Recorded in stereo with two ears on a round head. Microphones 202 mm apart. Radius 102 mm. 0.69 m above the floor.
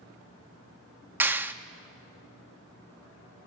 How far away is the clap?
About 0.5 m.